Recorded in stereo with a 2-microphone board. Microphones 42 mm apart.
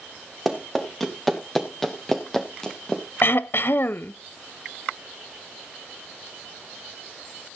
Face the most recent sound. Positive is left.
turn(degrees=60)  # may be behind; listen again after turning